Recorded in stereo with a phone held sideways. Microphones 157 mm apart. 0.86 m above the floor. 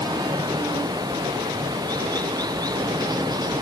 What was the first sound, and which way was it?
Running water, 25° right (ahead or behind).